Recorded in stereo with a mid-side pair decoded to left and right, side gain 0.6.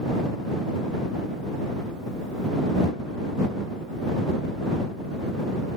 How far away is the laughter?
I don't hear laughter.